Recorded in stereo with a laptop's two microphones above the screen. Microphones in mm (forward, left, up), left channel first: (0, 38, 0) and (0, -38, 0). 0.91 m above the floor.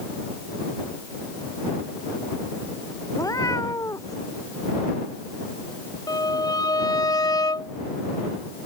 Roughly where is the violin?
Left.